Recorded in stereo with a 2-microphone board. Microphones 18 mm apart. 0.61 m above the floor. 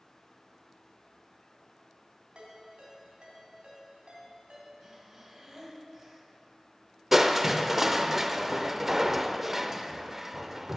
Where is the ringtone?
80° right, 3.5 m.